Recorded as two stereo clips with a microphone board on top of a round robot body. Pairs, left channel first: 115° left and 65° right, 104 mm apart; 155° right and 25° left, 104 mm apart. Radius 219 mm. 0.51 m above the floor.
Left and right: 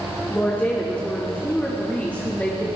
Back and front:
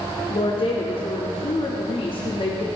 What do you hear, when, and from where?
0.3 s a woman speaking: 175° right, 2.5 m